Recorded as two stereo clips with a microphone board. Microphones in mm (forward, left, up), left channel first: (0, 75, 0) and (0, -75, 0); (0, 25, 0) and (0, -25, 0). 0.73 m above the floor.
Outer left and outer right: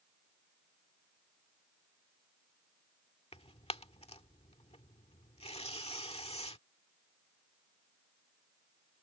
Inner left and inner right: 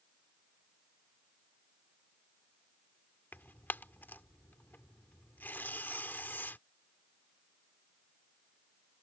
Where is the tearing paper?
40° left (ahead or behind).